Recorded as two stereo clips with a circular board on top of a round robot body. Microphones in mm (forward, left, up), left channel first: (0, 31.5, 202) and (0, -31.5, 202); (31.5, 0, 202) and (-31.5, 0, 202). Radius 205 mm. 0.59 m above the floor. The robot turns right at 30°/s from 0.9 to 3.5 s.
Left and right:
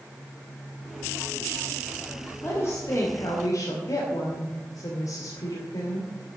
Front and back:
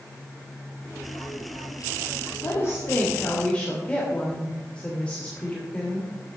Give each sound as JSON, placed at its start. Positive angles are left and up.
{"t": 2.4, "sound": "a woman speaking", "azimuth_deg": 40, "distance_m": 2.5}